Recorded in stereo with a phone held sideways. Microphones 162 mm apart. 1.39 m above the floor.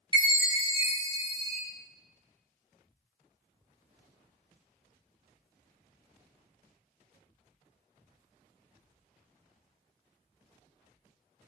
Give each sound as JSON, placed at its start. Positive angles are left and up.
{"t": 0.1, "sound": "a chime", "side_deg": -30, "distance_m": 0.8}